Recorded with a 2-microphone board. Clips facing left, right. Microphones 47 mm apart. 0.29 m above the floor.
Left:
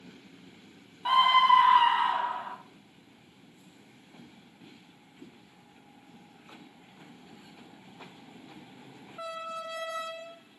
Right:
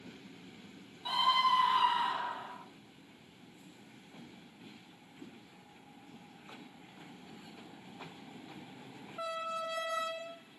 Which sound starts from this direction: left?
A scream, at 1.1 s.